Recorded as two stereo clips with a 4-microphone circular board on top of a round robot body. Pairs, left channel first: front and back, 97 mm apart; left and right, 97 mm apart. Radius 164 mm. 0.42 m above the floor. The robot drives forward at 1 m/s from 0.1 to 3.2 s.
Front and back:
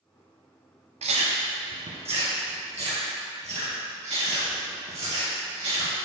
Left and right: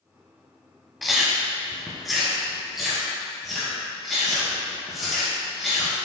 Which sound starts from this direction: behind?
Chewing, at 1.0 s.